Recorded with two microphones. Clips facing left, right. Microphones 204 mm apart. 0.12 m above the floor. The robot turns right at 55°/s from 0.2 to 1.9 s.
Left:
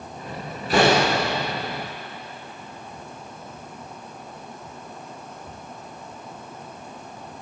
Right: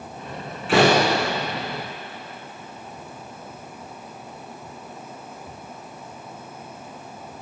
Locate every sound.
0.7 s a door slam: 80° right, 6.5 m; by 1.2 s 60° right (ahead or behind), 6.5 m